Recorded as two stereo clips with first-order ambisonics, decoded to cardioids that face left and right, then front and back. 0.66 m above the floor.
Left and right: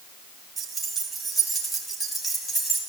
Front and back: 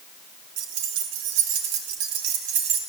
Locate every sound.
0.6 s keys jangling: 165° right, 2 m; by 2.8 s 170° left, 3 m